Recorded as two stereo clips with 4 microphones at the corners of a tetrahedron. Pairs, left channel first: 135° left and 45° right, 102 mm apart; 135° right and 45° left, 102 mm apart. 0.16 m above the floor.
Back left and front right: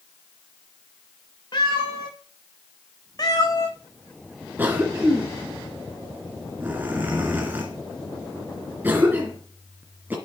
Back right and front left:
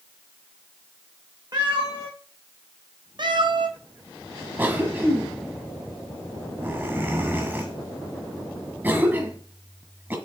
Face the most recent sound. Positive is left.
turn(degrees=0)